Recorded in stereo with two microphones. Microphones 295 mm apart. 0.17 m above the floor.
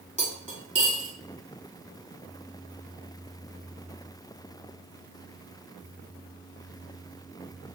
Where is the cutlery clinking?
25° right (ahead or behind), 0.8 m.